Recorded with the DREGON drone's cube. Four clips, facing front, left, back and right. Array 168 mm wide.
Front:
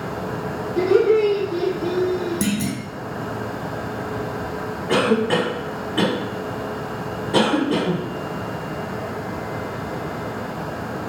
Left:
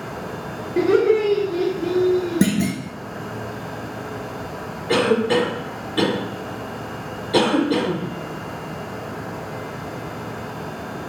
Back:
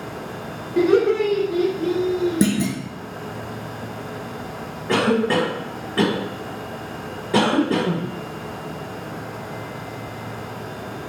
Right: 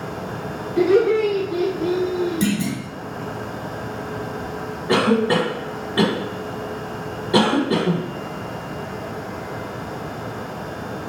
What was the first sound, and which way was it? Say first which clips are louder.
Laughter: even, front 1 dB; 125° left.